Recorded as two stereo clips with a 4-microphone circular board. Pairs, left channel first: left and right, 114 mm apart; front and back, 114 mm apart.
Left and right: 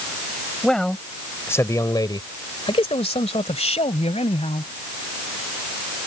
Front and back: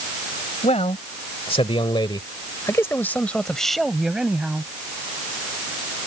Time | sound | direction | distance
0.6 | a man speaking | 5° left | ?